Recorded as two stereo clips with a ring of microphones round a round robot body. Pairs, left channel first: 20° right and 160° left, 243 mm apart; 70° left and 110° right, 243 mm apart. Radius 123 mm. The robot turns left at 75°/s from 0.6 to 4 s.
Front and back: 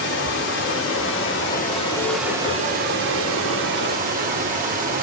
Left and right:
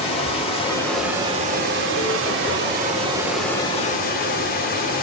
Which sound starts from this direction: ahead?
Running water, at 0.0 s.